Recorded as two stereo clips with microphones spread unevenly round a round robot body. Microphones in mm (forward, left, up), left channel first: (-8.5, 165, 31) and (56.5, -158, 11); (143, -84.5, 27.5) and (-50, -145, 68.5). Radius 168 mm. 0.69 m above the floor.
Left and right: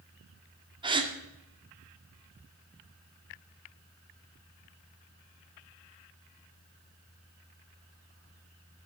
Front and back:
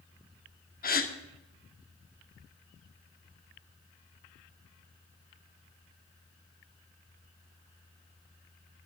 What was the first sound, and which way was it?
A gasp, 5° right.